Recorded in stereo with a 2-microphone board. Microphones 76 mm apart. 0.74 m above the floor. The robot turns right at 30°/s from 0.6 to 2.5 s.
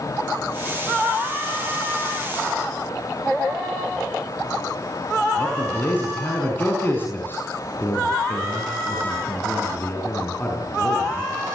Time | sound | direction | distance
5.3 | a man speaking | 25° left (ahead or behind) | 6.5 m